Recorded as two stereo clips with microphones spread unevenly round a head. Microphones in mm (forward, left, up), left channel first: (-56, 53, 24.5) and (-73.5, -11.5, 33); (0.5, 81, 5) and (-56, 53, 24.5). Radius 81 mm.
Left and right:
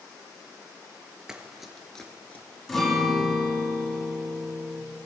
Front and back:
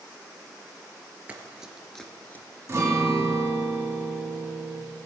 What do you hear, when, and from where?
1.3 s running footsteps: 170° right, 1.3 m; by 2.5 s 80° left, 1.0 m
2.7 s a guitar: 160° left, 2.5 m